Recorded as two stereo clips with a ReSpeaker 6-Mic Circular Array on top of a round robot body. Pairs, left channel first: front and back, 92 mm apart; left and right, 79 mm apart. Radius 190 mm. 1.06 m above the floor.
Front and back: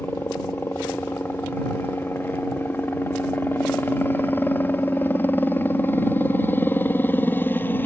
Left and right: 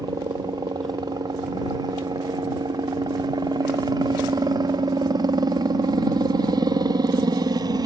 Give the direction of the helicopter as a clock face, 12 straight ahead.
2 o'clock.